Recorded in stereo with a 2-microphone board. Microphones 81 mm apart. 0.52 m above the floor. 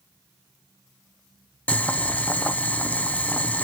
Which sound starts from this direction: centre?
Boiling, at 1.7 s.